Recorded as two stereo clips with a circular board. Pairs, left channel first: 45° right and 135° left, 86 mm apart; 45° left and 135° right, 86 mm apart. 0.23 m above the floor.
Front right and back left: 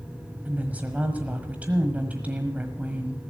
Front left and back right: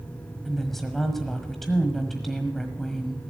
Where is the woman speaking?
125° left, 1.3 m.